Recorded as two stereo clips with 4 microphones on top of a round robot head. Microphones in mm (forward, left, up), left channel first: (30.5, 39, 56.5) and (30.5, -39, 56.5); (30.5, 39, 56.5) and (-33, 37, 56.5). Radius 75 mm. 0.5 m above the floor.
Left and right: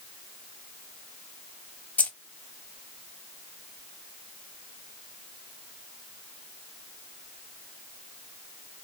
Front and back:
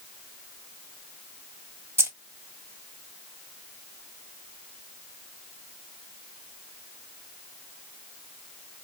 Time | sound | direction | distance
2.0 | keys jangling | 155° left | 0.9 m